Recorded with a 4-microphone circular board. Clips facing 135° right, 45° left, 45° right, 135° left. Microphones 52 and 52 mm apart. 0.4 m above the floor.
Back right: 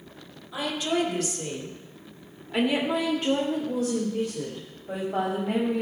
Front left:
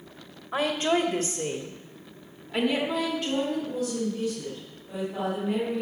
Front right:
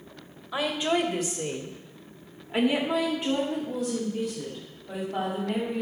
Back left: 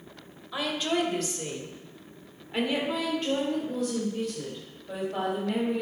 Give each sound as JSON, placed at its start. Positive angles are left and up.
{"t": 0.5, "sound": "a woman speaking", "azimuth_deg": 30, "distance_m": 2.0}